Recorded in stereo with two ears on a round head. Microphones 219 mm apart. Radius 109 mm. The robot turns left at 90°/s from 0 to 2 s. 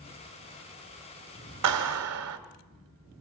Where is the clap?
80° right, 2.5 m; by 2.4 s 115° right, 2.5 m.